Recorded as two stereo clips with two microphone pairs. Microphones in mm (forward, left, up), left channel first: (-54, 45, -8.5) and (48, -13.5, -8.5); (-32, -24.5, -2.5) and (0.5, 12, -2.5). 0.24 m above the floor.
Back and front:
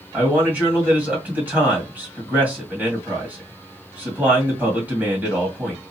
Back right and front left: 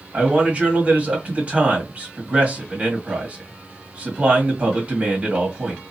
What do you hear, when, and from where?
0.1 s a man speaking: 35° left, 1.7 m